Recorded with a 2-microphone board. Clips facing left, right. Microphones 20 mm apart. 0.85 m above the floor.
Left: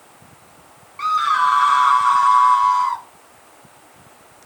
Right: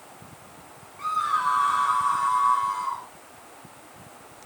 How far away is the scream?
About 1.7 m.